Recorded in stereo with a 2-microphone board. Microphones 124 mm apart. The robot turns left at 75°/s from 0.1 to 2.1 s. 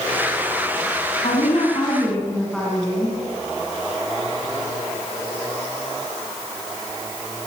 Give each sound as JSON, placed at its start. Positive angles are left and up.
{"t": 1.2, "sound": "a woman speaking", "azimuth_deg": 70, "distance_m": 6.0}